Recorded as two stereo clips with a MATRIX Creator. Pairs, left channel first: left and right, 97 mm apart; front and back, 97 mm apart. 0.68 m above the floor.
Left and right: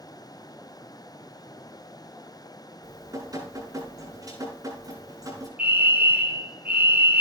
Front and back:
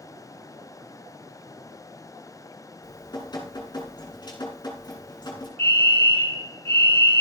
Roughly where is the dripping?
Ahead right.